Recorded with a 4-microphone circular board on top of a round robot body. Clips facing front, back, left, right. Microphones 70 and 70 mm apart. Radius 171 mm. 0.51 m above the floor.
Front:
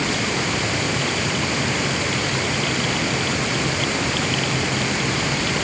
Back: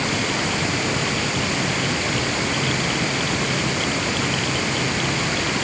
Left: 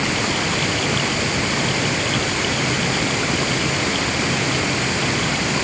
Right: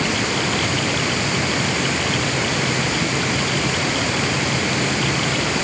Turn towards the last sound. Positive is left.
No sound to turn to.